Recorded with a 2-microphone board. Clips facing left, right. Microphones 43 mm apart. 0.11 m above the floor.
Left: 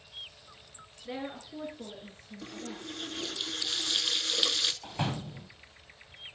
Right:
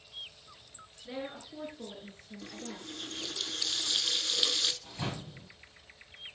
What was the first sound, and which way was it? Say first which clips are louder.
A woman speaking: left 2 dB; 20° left (ahead or behind).